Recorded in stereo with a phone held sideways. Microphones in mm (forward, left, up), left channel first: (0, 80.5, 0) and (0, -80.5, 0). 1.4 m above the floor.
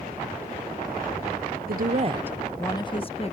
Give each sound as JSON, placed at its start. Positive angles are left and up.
{"t": 1.7, "sound": "a woman speaking", "side_deg": -70}